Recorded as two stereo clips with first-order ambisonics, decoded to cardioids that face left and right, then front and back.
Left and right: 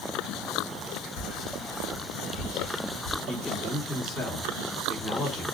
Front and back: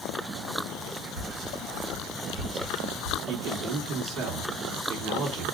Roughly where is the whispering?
Behind left.